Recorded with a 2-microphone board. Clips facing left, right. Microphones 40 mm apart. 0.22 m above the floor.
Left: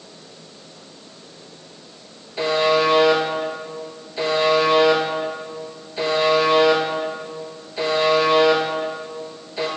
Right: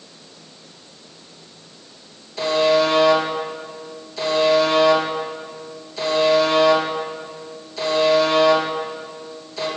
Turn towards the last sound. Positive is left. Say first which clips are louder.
# right 1 dB
turn(degrees=20)  # may be behind; listen again after turning